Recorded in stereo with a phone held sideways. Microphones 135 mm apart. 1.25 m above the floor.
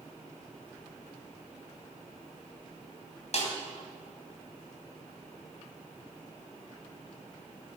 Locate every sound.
3.3 s a snare drum: 55° left (ahead or behind), 3 m